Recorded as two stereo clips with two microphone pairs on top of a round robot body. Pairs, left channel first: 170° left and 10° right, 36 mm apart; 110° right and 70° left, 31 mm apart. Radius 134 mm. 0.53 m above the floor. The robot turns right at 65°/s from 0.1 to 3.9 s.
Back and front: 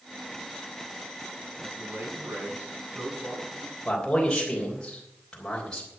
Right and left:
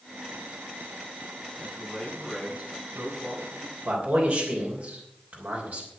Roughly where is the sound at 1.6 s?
Right.